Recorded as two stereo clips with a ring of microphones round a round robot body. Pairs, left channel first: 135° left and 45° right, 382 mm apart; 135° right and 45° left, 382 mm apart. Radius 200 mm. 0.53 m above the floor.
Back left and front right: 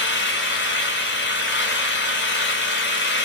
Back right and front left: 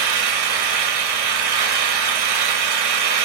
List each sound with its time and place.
0.0 s an engine running: 75° left, 1.7 m